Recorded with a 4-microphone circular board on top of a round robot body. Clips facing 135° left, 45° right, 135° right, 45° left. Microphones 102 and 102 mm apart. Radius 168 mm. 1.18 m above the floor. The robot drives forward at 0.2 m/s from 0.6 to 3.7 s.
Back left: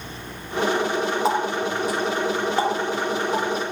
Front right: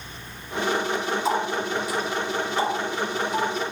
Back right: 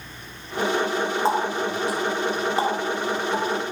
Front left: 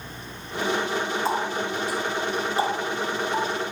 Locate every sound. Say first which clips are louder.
1.2 s a running tap: back left 2 dB, back right 3 dB; 175° left, 2.5 m